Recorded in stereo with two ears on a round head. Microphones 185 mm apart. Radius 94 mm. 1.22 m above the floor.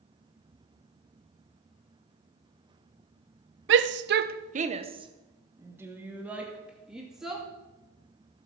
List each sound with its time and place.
3.7 s a shout: 60° right (ahead or behind), 0.8 m; by 7.4 s centre (ahead or behind), 2.5 m